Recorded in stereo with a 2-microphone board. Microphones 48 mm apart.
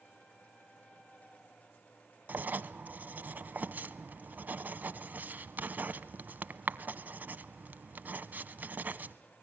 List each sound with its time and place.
2.3 s writing: 40° right (ahead or behind), 0.8 m